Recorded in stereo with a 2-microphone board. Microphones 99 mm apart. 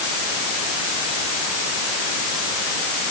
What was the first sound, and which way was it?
Only background noise.